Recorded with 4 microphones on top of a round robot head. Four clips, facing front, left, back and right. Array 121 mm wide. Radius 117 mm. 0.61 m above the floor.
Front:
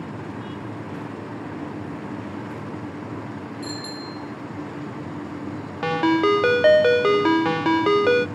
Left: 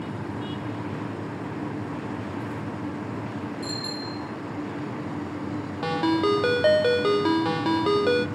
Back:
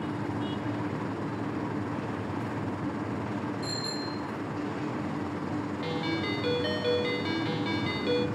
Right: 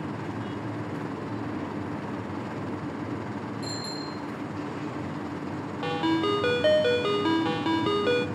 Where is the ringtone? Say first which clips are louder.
Left 3 dB, front 17 dB; 10° left, 0.6 m.